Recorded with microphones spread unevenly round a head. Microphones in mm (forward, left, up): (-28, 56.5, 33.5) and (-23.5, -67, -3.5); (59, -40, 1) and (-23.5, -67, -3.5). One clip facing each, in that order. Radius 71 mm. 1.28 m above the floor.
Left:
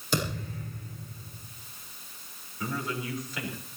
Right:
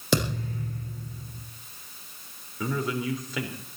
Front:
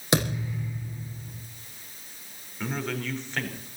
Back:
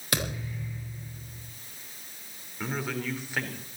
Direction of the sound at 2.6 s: 80° right.